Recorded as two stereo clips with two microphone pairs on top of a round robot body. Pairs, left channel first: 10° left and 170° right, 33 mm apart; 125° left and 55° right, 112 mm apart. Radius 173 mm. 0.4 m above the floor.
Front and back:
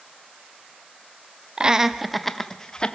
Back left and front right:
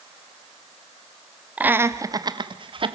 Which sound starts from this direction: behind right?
Laughter, at 1.6 s.